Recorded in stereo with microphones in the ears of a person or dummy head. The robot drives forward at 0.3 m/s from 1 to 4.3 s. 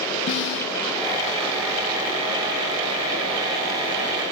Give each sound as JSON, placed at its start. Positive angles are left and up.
{"t": 0.3, "sound": "a snare drum", "side_deg": 65, "distance_m": 0.7}